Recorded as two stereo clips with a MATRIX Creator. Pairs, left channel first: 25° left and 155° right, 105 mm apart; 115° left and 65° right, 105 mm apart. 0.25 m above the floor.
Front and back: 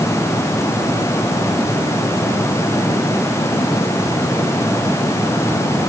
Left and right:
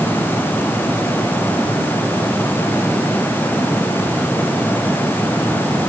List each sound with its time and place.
Only background noise.